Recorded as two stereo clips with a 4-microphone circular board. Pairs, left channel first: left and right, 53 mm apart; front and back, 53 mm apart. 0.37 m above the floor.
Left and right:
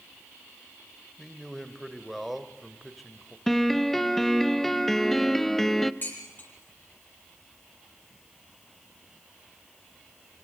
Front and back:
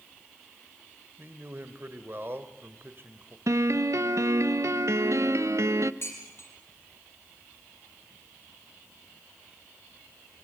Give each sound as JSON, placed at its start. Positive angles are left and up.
{"t": 1.2, "sound": "a man speaking", "azimuth_deg": 180, "distance_m": 1.8}
{"t": 3.5, "sound": "a piano", "azimuth_deg": 175, "distance_m": 0.6}
{"t": 6.0, "sound": "dishes clattering", "azimuth_deg": 40, "distance_m": 7.0}